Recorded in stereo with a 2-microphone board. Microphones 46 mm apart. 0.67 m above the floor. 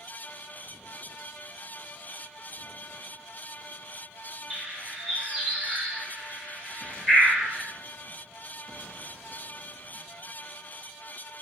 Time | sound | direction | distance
4.5 | a bird | 10° right (ahead or behind) | 1.5 m